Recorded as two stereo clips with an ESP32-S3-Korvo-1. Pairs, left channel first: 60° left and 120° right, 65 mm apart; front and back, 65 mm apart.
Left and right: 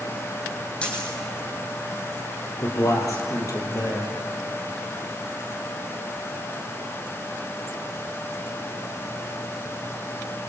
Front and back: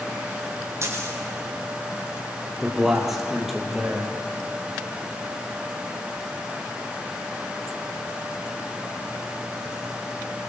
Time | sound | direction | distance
0.8 | a dropped coin | 130° left | 4.5 m
2.6 | a man speaking | 95° left | 5 m